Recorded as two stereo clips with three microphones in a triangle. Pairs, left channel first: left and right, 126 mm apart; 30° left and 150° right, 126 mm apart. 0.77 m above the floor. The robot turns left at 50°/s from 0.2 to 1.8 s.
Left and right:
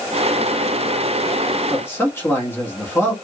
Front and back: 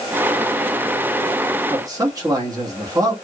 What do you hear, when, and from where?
1.7 s a man speaking: 165° left, 1.2 m; by 3.1 s 160° left, 1.2 m